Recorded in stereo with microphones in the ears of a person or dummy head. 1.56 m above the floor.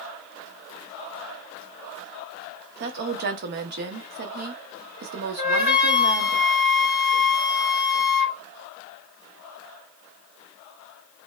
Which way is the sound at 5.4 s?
10° right (ahead or behind).